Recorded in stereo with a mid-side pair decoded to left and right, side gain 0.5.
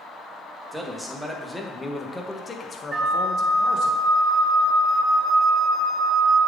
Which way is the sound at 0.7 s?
5° right.